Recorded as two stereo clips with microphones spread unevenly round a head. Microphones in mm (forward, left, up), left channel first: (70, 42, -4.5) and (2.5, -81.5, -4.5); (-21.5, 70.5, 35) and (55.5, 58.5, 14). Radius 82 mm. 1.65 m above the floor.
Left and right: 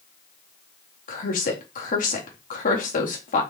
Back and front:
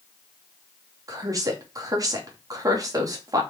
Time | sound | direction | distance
1.1 | a woman speaking | 35° left | 3 m